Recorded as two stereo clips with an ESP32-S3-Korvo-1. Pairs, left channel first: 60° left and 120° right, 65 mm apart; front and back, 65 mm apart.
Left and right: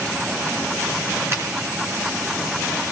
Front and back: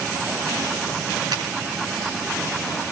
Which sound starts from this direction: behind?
A finger snap, at 1.3 s.